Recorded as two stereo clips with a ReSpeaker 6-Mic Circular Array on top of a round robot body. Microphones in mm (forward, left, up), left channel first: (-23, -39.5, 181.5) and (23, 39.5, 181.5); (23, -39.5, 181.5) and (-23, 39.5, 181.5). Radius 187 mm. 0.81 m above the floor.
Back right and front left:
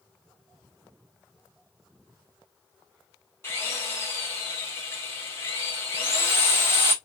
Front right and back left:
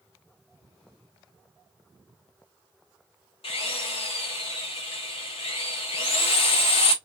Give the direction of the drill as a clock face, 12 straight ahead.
2 o'clock.